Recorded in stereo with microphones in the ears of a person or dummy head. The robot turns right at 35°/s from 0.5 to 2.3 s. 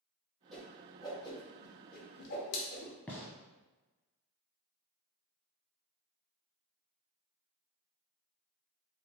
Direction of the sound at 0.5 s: 5° left (ahead or behind).